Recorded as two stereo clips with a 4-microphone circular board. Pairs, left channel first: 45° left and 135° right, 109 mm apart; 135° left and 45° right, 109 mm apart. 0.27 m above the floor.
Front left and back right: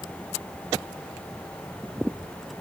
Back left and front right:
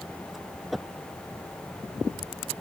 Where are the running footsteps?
No running footsteps in this recording.